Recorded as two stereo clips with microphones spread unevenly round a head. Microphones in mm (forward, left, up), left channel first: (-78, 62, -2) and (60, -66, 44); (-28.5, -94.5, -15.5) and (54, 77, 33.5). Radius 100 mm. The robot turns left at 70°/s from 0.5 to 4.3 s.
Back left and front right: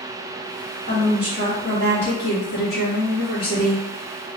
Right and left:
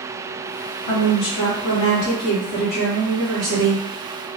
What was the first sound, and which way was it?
A woman speaking, 105° right.